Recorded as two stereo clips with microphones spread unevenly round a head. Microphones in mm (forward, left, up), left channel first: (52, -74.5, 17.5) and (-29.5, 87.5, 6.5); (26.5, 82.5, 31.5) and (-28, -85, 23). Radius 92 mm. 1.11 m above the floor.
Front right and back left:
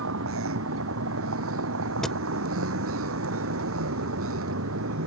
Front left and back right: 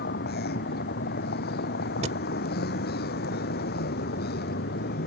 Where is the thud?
145° right.